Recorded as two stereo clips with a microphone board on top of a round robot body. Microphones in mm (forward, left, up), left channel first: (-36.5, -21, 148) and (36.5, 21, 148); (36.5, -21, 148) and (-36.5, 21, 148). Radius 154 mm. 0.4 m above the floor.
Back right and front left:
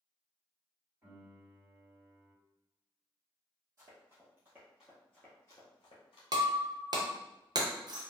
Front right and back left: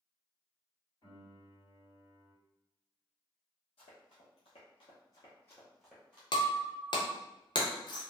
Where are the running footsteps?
25° right, 1.2 m; by 6.2 s 140° right, 0.8 m.